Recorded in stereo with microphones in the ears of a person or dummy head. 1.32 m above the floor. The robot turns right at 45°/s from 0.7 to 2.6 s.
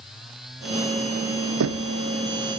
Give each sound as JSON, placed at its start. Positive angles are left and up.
{"t": 1.6, "sound": "knocking", "side_deg": -55, "distance_m": 0.7}